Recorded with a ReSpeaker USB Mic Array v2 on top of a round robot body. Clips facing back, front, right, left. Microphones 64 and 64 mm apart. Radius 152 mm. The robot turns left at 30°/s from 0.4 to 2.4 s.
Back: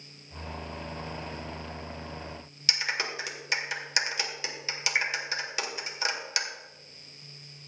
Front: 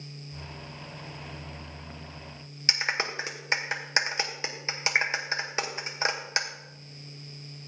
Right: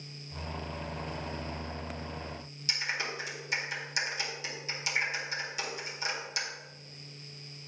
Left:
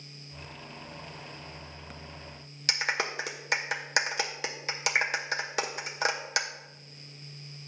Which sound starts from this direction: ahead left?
A clap, at 2.7 s.